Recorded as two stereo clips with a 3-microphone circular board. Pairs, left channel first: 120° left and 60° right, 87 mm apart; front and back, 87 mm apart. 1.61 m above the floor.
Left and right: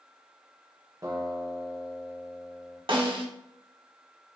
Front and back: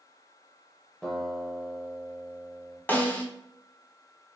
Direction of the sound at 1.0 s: 80° right.